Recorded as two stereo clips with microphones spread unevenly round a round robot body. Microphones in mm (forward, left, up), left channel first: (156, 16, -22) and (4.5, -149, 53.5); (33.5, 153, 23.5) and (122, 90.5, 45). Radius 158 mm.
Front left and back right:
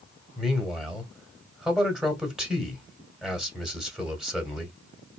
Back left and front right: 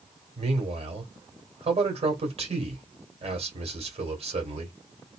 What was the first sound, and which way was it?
A man speaking, 30° right.